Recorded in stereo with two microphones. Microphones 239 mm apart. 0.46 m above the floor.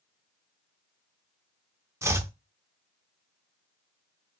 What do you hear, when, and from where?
2.0 s chopping: 15° right (ahead or behind), 0.5 m